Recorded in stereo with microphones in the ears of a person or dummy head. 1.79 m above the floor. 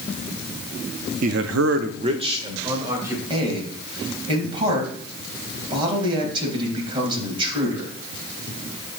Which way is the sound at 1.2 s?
45° right (ahead or behind).